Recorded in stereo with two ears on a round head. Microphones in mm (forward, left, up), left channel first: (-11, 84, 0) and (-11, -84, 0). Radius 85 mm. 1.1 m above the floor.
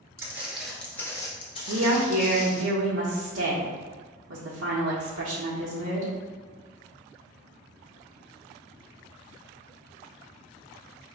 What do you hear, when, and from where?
0.2 s footsteps: 15° right (ahead or behind), 1.1 m; by 2.6 s 50° left (ahead or behind), 1.6 m
1.7 s a woman speaking: 85° right, 0.7 m